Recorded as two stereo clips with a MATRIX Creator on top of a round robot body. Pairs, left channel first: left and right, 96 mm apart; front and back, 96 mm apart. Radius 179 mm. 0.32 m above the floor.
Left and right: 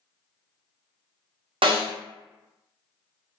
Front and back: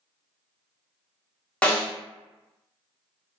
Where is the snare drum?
80° right, 0.9 m.